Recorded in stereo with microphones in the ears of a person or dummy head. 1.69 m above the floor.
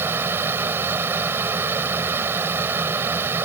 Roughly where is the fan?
Centre.